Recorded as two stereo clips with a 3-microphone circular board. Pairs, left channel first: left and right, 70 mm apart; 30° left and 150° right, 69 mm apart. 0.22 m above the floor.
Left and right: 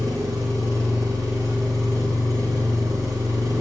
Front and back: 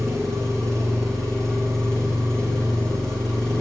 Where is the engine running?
55° right, 4 m.